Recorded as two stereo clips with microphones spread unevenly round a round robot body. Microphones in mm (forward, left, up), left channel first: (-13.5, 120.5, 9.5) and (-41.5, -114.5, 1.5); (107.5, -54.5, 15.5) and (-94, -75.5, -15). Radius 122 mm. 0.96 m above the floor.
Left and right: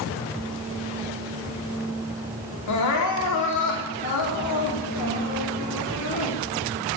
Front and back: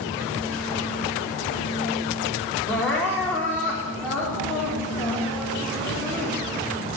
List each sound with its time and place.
2.7 s crying: 95° left, 3 m